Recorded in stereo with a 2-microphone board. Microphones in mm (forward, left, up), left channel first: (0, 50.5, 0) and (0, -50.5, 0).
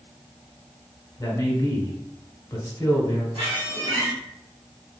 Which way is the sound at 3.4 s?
55° right (ahead or behind).